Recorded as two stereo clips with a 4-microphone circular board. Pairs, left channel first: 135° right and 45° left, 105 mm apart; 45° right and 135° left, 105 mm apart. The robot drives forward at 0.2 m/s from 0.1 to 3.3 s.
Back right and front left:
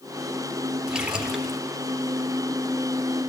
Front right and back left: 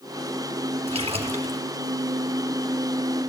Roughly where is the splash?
Behind left.